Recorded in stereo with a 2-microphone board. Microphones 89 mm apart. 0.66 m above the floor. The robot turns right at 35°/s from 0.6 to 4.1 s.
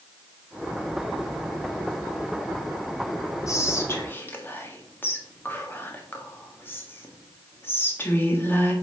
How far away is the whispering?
About 1.4 m.